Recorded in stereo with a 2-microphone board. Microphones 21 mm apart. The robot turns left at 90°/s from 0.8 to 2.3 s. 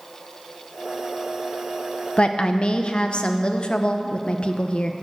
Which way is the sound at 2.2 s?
55° left (ahead or behind).